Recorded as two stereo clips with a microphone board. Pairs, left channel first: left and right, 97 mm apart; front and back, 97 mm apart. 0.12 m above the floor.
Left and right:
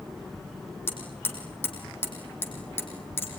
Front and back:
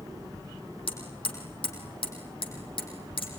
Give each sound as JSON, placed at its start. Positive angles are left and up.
{"t": 0.9, "sound": "hammering", "azimuth_deg": 25, "distance_m": 5.0}